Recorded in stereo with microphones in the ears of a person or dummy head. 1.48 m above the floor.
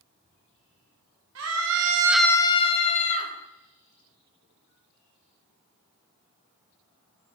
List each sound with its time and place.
1.4 s a scream: 75° right (ahead or behind), 1.1 m; by 3.3 s 40° left (ahead or behind), 2 m